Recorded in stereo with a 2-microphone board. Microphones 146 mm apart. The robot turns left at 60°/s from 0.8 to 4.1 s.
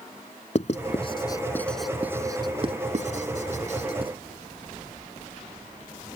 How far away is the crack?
No crack in this recording.